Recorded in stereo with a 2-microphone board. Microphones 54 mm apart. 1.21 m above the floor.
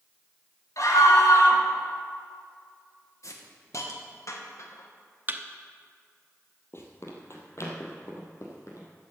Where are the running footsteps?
50° left (ahead or behind), 1.9 m; by 8.9 s 60° left (ahead or behind), 3 m.